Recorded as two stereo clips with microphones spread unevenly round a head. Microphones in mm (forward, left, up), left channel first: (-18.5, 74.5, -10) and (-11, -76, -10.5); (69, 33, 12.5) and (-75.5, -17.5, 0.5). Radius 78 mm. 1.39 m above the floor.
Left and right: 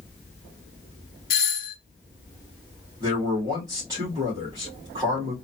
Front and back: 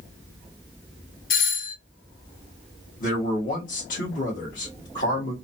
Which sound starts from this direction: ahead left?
A doorbell, at 1.3 s.